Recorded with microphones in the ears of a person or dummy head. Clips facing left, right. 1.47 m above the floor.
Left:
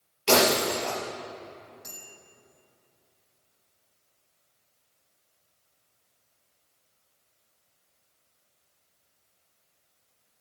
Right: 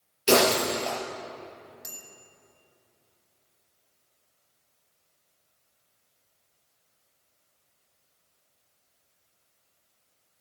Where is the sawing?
No sawing in this recording.